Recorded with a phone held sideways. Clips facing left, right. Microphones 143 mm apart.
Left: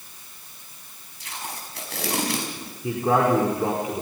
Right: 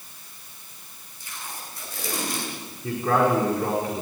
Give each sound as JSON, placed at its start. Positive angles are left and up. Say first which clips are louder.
{"t": 1.2, "sound": "tape being pulled", "louder": "left 3 dB", "side_deg": 85, "distance_m": 5.0}
{"t": 2.8, "sound": "a man speaking", "louder": "left 1 dB", "side_deg": 15, "distance_m": 4.5}